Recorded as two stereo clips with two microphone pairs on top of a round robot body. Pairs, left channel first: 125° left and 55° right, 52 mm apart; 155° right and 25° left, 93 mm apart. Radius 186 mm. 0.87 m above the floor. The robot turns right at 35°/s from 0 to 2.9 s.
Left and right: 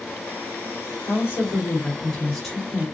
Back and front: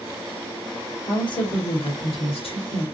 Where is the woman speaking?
165° left, 2.5 m; by 2.8 s 130° right, 2.5 m.